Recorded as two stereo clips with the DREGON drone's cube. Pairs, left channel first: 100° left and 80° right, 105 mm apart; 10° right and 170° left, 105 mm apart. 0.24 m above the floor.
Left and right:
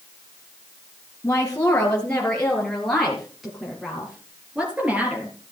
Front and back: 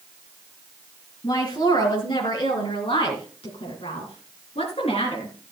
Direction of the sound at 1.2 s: 30° left.